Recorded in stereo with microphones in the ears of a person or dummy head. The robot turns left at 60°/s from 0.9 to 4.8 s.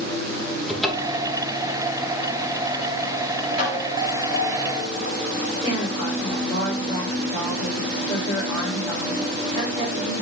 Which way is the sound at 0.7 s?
5° right (ahead or behind).